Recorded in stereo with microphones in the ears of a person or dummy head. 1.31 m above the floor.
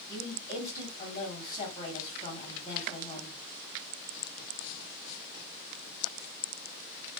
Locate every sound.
0.1 s a woman speaking: 20° left (ahead or behind), 1.2 m